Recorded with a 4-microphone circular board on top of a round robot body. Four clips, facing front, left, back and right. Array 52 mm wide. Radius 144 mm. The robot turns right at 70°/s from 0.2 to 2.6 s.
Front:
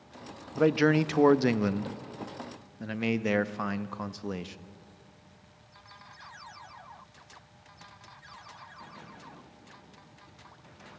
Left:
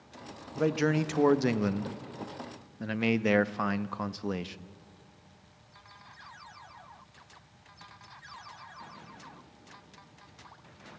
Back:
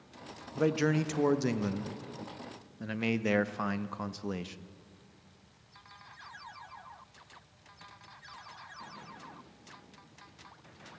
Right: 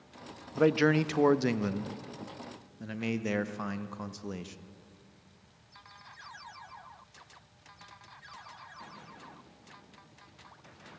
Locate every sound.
0.6 s a man speaking: 60° right, 0.8 m; by 4.7 s 85° left, 0.8 m